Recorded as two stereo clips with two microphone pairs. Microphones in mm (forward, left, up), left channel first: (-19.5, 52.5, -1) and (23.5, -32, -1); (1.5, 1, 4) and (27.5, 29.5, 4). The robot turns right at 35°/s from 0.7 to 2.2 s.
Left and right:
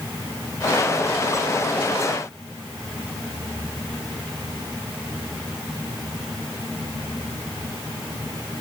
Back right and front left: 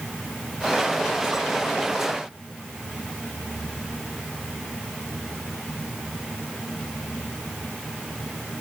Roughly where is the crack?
I don't hear a crack.